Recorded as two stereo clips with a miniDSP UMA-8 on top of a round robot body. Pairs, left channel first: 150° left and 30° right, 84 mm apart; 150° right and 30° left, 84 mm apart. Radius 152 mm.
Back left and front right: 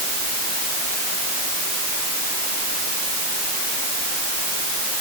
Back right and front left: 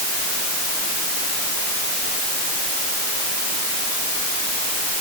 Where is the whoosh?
I don't hear a whoosh.